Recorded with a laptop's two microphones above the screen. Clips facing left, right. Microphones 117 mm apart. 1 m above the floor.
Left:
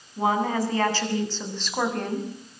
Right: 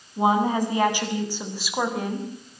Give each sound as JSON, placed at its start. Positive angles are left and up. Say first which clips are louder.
{"t": 0.2, "sound": "a woman speaking", "louder": "right 3 dB", "side_deg": -20, "distance_m": 8.0}